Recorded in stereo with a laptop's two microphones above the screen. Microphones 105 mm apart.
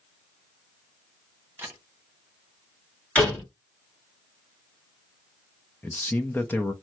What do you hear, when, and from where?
1.6 s a camera shutter: 20° right (ahead or behind), 0.8 m
3.1 s a door slam: 10° left (ahead or behind), 1.7 m
5.8 s a man speaking: 20° left (ahead or behind), 0.6 m